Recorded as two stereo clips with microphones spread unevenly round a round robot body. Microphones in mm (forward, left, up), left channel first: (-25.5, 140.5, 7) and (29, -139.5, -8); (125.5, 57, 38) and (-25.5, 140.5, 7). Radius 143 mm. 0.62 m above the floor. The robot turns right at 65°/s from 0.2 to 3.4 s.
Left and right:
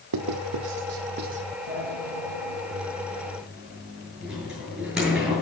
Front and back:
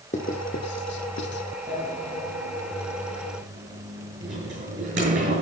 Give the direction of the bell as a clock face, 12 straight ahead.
I don't hear a bell.